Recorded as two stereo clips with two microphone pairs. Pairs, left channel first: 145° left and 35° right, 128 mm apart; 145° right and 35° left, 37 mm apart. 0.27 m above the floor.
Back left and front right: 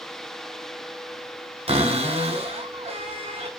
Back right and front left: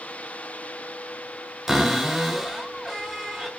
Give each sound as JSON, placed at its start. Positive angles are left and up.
{"t": 1.7, "sound": "a cupboard door", "azimuth_deg": -50, "distance_m": 0.9}